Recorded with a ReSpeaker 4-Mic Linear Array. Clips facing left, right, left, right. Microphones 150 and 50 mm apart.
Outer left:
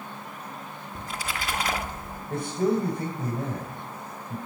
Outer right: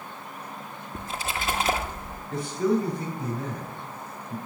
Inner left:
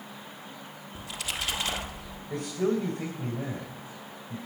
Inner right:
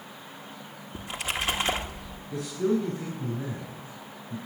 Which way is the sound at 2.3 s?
55° left (ahead or behind).